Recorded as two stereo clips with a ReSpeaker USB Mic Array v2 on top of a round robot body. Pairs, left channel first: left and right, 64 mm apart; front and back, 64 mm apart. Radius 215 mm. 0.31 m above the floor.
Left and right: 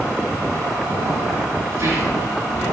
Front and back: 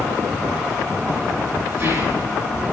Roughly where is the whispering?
Behind right.